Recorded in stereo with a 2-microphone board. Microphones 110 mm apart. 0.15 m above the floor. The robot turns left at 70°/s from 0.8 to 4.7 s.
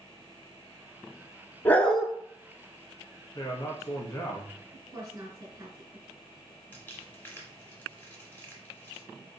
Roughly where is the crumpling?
Centre.